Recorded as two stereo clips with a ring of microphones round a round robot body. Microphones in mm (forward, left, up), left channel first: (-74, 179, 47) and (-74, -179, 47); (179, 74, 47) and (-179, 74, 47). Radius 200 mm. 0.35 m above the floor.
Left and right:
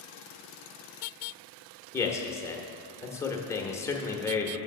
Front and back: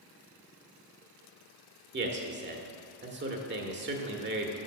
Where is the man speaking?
165° left, 1.1 m.